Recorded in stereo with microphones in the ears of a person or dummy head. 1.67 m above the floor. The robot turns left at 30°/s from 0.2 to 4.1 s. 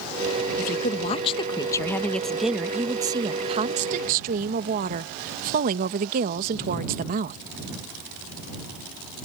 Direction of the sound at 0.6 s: 50° left.